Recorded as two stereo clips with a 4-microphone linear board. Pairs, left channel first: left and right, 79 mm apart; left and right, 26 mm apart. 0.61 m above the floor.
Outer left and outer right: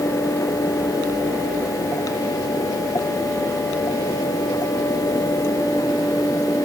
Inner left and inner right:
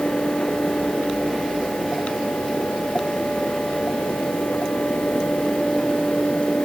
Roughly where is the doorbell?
No doorbell in this recording.